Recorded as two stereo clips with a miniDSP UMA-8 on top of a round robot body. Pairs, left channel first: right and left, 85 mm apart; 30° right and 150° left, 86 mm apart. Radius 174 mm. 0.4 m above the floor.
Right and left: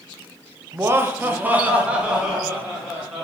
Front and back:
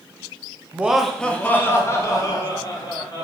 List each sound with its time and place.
0.7 s laughter: 90° left, 0.8 m; by 3.2 s 5° left, 1.6 m